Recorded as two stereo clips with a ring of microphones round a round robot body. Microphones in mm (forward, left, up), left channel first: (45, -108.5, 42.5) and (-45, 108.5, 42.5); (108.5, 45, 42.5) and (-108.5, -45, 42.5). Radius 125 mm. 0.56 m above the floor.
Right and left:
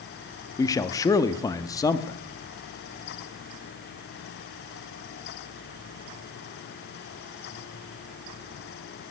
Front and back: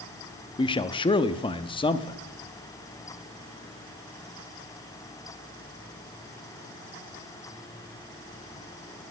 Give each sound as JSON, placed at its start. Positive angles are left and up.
{"t": 0.6, "sound": "a man speaking", "azimuth_deg": -10, "distance_m": 0.6}